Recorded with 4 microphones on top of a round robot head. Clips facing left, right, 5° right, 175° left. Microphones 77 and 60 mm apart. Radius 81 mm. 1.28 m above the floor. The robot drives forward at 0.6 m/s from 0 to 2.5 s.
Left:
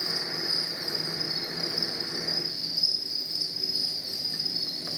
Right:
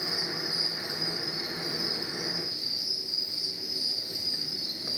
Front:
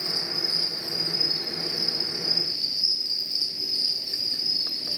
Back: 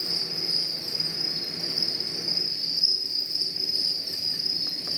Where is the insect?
90° left, 3.5 m; by 5.0 s 115° left, 4 m.